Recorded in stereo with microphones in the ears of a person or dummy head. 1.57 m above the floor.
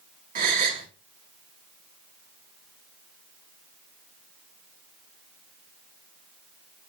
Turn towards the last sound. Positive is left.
turn(degrees=-40)  # may be behind; listen again after turning